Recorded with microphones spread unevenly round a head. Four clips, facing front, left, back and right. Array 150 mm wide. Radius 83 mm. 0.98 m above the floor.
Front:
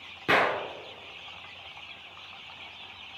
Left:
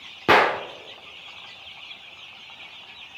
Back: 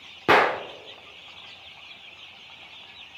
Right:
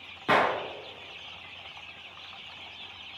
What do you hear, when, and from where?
0.3 s a gunshot: 105° left, 0.9 m